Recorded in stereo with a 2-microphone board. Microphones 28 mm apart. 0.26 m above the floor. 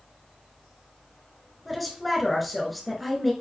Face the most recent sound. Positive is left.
turn(degrees=0)  # may be behind; listen again after turning